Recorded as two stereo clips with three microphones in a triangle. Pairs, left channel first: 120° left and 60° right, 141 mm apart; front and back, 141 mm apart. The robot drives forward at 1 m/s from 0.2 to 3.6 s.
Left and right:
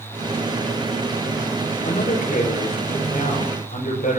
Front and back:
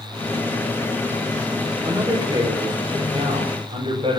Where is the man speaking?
120° left, 7 m; by 4.2 s 130° left, 8 m.